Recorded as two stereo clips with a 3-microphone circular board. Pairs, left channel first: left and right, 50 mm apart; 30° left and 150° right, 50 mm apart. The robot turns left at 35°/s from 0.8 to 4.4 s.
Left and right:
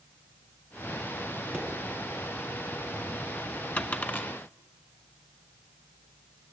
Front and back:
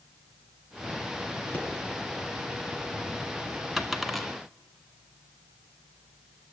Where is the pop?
5° right, 2.5 m.